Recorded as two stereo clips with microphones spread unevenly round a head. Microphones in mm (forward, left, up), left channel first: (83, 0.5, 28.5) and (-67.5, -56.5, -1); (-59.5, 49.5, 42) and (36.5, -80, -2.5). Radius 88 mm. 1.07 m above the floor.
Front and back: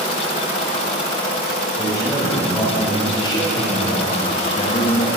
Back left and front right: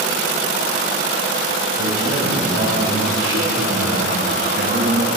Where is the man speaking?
50° right, 6 m; by 5.1 s 10° right, 2.0 m.